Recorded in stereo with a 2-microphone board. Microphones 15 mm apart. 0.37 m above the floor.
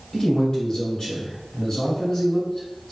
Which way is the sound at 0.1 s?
45° left (ahead or behind).